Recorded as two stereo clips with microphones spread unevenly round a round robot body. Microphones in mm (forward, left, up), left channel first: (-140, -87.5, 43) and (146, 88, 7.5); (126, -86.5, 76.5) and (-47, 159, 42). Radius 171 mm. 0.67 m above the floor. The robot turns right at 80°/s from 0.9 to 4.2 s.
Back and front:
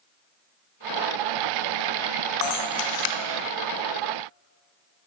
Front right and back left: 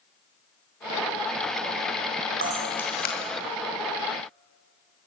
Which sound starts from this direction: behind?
A camera shutter, at 2.4 s.